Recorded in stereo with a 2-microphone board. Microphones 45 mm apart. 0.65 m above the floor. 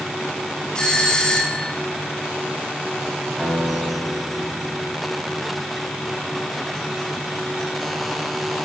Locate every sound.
0.8 s a doorbell: 15° left (ahead or behind), 2 m
3.4 s a guitar: 5° left (ahead or behind), 3.5 m